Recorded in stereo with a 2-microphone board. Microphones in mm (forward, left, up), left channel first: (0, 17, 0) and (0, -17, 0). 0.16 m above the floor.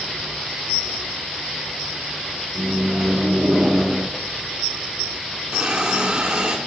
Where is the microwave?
5° right (ahead or behind), 1.1 m.